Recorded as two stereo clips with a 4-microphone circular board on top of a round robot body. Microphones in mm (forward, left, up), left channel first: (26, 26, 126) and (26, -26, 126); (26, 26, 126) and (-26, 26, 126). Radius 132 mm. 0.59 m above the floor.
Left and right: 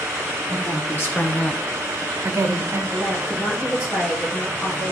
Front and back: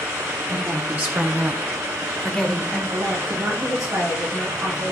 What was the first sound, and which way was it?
A woman speaking, 125° left.